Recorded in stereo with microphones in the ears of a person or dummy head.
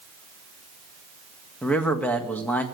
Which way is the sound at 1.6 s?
10° left (ahead or behind).